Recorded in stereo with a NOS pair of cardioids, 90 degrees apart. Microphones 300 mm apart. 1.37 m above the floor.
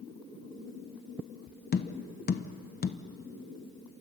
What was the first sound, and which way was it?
Tapping, 35° left.